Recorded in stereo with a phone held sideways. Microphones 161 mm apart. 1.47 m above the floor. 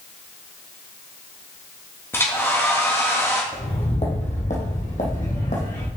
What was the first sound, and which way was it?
A hair dryer, 15° left (ahead or behind).